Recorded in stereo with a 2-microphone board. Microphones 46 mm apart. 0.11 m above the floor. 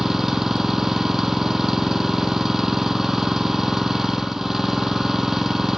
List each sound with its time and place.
0.0 s an engine running: 10° right (ahead or behind), 1.2 m